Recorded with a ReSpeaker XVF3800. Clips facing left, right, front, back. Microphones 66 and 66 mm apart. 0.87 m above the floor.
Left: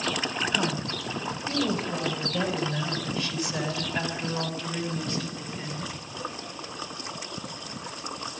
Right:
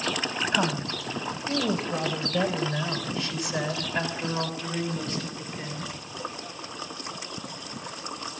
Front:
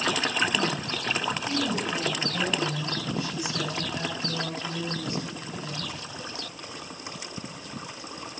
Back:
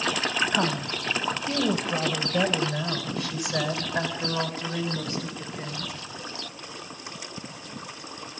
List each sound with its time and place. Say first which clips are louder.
0.5 s a woman speaking: right 2 dB, back 2 dB; 160° right, 3 m; by 5.9 s straight behind, 6.5 m